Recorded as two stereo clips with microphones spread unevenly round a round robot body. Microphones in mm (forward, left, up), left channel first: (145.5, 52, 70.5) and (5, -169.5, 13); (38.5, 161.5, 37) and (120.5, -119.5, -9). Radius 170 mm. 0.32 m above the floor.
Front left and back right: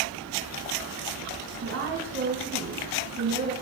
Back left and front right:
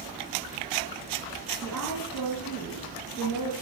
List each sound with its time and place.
1.6 s a woman speaking: 165° right, 3.5 m